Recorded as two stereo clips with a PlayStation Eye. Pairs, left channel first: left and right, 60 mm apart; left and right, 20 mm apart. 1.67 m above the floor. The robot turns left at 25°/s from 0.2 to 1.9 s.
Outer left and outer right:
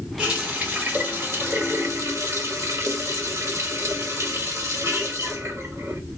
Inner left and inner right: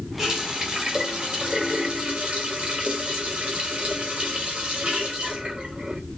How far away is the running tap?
About 1.6 m.